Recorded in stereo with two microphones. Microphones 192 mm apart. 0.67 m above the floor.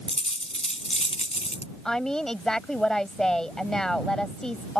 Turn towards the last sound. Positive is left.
turn(degrees=5)  # may be behind; listen again after turning